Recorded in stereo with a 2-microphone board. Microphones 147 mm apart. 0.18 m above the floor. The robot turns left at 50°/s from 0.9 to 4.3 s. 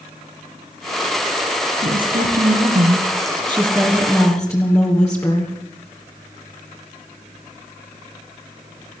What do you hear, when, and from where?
1.8 s a woman speaking: 75° right, 3.5 m; by 5.5 s 160° left, 3.5 m